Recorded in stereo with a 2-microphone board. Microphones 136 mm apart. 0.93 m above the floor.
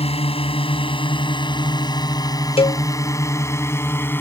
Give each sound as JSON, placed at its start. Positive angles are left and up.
{"t": 0.0, "sound": "a drone", "side_deg": 45}
{"t": 2.6, "sound": "a cowbell", "side_deg": 45}